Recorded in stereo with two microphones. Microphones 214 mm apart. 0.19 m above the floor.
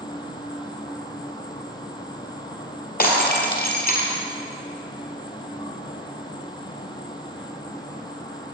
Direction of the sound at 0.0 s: 20° left (ahead or behind).